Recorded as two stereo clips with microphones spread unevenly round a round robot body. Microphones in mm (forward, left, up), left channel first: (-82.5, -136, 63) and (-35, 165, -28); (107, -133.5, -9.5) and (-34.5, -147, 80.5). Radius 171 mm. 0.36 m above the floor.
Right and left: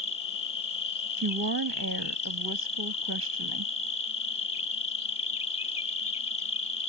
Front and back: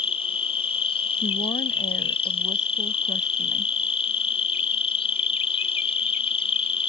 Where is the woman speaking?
55° left.